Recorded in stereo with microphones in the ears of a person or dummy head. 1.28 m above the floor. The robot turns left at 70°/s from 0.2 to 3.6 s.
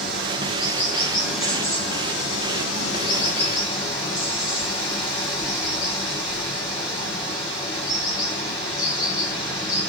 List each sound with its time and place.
0.0 s running water: 105° right, 1.3 m; by 9.9 s 20° left, 1.3 m